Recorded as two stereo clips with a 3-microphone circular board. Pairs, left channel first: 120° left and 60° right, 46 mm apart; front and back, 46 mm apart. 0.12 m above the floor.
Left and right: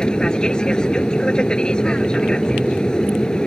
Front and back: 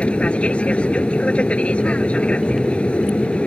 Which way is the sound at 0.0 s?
55° left.